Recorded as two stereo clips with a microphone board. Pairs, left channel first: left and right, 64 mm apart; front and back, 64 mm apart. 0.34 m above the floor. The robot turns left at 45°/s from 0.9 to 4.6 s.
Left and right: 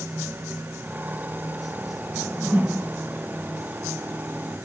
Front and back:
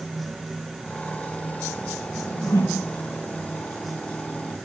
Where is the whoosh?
10° right, 0.8 m; by 2.9 s 45° right, 0.8 m.